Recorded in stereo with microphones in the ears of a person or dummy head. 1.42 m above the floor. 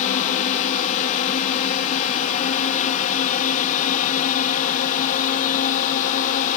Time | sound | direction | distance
0.0 | a drone | 40° left (ahead or behind) | ?